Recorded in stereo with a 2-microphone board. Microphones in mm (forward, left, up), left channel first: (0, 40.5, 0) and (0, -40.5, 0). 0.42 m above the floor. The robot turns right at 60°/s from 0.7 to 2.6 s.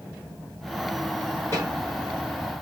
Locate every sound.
1.5 s a snare drum: 35° left (ahead or behind), 1.8 m; by 1.7 s 40° left (ahead or behind), 1.8 m